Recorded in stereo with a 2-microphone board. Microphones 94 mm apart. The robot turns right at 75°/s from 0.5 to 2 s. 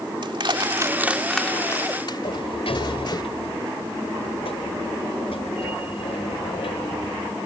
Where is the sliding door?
85° left.